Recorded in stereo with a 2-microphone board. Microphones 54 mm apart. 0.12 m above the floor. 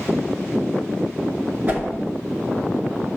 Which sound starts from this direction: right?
A whoosh, at 1.7 s.